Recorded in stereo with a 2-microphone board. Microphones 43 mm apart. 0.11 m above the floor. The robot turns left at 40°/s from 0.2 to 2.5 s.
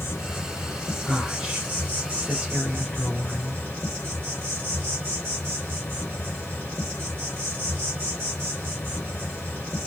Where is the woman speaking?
10° right (ahead or behind), 1.3 m; by 3.6 s 25° right (ahead or behind), 1.3 m.